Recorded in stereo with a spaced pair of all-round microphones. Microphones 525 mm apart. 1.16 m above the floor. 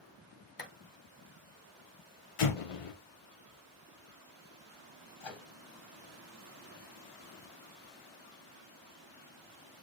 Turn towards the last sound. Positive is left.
turn(degrees=60)  # may be behind; listen again after turning